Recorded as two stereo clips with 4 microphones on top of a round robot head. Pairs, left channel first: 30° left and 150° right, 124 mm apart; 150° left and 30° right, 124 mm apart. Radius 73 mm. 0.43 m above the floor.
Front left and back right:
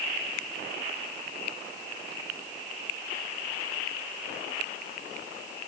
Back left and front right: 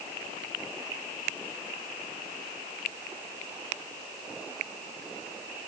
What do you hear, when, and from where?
Only background noise.